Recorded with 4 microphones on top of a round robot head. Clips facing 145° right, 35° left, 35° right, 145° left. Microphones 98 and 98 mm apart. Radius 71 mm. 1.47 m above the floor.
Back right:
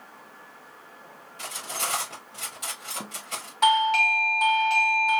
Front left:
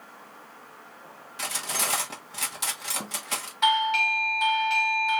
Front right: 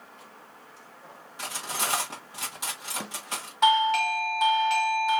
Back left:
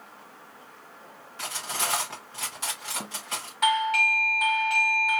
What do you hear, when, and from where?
1.4 s cutlery clinking: 40° left, 1.4 m
3.6 s a doorbell: 95° right, 0.5 m